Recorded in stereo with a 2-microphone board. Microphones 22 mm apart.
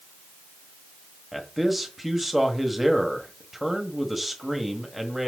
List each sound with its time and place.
1.3 s a man speaking: 10° right (ahead or behind), 1.4 m